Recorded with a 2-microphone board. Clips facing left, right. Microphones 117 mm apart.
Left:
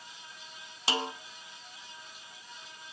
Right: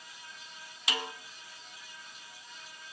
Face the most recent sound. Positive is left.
turn(degrees=30)  # may be behind; listen again after turning